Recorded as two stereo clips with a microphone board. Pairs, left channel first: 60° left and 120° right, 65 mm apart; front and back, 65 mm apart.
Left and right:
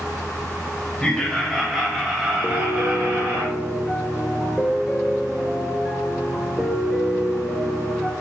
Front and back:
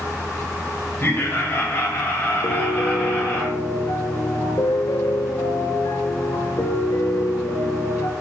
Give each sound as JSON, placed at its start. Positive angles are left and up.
{"t": 1.0, "sound": "laughter", "azimuth_deg": -5, "distance_m": 1.9}
{"t": 2.4, "sound": "a piano", "azimuth_deg": -30, "distance_m": 0.7}